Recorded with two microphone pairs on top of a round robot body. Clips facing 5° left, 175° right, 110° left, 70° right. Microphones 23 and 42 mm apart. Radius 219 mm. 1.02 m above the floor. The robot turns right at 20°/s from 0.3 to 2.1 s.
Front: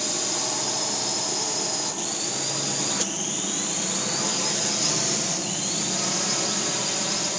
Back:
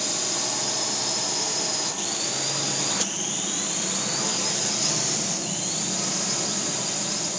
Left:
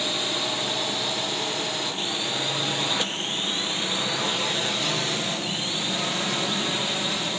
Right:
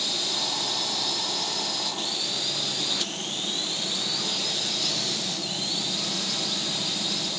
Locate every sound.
0.0 s a drone: 90° left; by 7.4 s 65° left